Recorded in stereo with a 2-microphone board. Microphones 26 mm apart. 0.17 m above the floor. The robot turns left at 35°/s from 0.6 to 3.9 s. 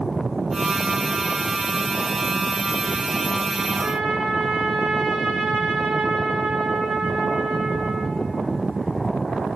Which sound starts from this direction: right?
A trumpet, at 3.8 s.